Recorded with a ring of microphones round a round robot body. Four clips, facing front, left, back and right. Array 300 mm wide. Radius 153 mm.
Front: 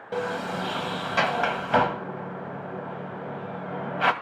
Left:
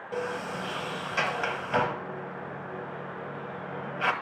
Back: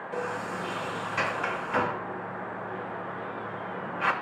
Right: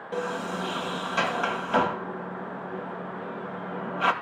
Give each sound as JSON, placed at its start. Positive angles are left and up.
{"t": 0.1, "sound": "a sliding door", "azimuth_deg": -10, "distance_m": 1.7}